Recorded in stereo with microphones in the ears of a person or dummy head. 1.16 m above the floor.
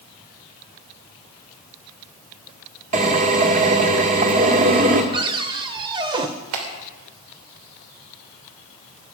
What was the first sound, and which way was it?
A drill, 40° right (ahead or behind).